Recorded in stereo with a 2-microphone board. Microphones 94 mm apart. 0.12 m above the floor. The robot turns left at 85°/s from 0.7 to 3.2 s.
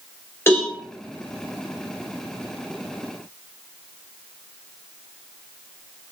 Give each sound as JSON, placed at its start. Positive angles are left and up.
{"t": 0.5, "sound": "a cowbell", "side_deg": 25, "distance_m": 2.0}